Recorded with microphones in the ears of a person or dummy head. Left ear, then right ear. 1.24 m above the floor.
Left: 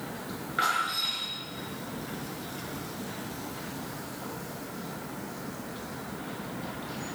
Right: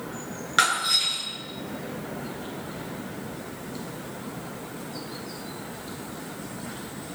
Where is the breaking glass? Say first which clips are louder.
Right 6 dB; 80° right, 9 m.